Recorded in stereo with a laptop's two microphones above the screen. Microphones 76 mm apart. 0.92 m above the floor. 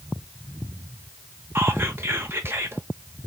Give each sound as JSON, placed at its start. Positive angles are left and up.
{"t": 1.6, "sound": "whispering", "side_deg": -35, "distance_m": 0.7}